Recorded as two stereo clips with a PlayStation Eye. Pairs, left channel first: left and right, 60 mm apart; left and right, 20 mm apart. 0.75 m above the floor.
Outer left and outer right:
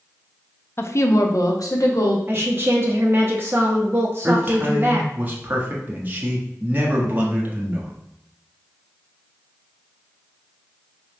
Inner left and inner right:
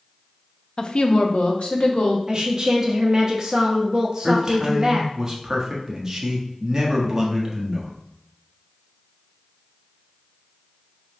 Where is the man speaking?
30° right (ahead or behind), 1.1 m.